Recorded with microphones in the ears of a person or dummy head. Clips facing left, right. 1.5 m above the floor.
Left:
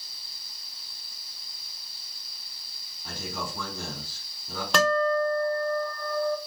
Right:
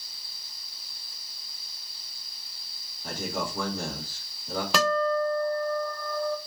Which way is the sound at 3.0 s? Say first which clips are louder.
Right 4 dB; 50° right (ahead or behind).